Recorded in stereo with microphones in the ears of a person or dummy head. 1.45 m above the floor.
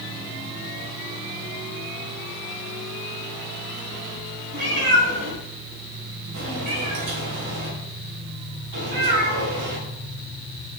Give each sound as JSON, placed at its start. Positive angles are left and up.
{"t": 4.5, "sound": "a cat meowing", "side_deg": -80, "distance_m": 6.0}